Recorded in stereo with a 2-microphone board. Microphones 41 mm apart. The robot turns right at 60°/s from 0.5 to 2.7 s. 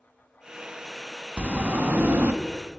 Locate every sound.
1.4 s a sliding door: 145° right, 0.5 m; by 2.3 s 90° right, 0.5 m